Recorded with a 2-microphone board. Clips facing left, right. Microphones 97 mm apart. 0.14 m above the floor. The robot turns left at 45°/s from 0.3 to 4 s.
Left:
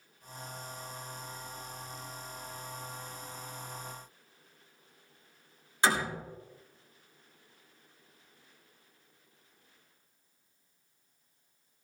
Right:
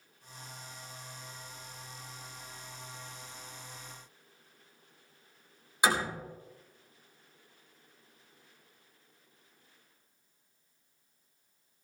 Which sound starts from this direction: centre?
A door slam, at 5.8 s.